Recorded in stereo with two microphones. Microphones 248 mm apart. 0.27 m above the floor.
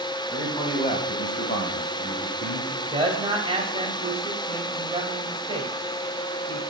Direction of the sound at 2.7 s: 25° right (ahead or behind).